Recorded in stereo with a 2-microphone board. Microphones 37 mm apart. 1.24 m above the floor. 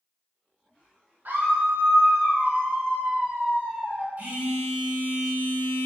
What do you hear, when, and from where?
1.2 s a scream: 55° right (ahead or behind), 0.6 m; by 4.1 s 60° right (ahead or behind), 1.6 m
4.2 s a phone buzzing: 60° right (ahead or behind), 1.1 m